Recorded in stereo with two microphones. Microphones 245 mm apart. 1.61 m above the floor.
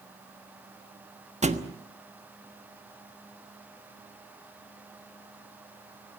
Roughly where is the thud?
Right.